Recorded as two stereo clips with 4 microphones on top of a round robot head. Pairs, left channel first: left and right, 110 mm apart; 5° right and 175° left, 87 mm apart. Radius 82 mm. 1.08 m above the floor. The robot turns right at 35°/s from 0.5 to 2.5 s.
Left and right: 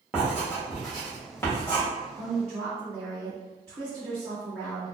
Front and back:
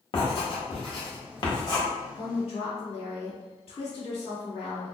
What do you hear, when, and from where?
0.1 s writing: 10° right, 1.3 m; by 1.9 s 35° left, 1.3 m
2.1 s a woman speaking: 35° right, 1.5 m; by 5.0 s 25° right, 1.5 m